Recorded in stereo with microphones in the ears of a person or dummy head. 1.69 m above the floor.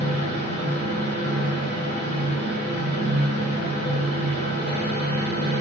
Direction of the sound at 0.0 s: 35° left (ahead or behind).